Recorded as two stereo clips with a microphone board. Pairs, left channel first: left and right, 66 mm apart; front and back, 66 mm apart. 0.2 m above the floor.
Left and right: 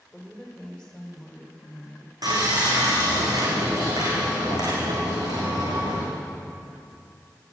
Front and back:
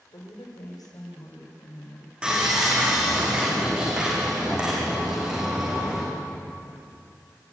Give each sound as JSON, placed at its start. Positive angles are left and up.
{"t": 0.1, "sound": "a woman speaking", "azimuth_deg": 0, "distance_m": 8.0}
{"t": 2.2, "sound": "sawing", "azimuth_deg": -105, "distance_m": 8.0}